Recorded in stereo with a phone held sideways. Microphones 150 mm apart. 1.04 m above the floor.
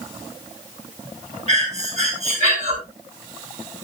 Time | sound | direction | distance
1.5 | breathing | 50° right (ahead or behind) | 4.5 m